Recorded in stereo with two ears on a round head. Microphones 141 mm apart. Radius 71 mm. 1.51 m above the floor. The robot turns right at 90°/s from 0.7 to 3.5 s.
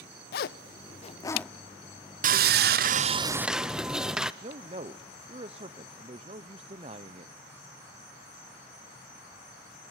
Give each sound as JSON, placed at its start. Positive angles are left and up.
{"t": 0.3, "sound": "a zipper", "side_deg": 65, "distance_m": 0.6}
{"t": 2.2, "sound": "sawing", "azimuth_deg": -120, "distance_m": 0.7}
{"t": 4.4, "sound": "a man speaking", "side_deg": -35, "distance_m": 0.7}